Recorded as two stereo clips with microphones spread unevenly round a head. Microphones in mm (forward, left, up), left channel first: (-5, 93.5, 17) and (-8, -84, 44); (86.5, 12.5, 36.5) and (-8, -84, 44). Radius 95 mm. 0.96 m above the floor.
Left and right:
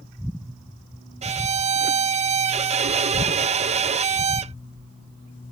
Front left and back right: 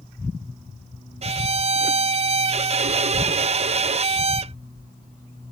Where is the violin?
140° right.